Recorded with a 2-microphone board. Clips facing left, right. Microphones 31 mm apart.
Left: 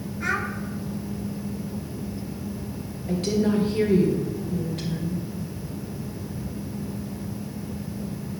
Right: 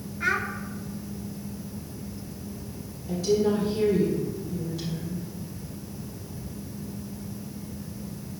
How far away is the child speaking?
About 1.2 m.